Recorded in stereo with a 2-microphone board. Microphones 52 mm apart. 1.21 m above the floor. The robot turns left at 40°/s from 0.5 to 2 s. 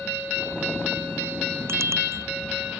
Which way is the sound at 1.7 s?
55° right (ahead or behind).